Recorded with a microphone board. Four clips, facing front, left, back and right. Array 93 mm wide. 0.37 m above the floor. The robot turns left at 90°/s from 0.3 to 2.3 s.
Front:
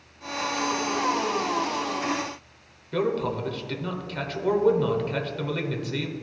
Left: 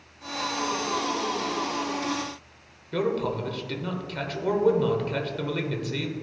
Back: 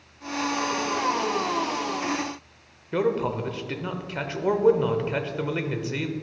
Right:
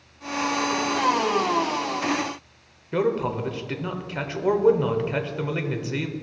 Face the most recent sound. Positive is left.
turn(degrees=-130)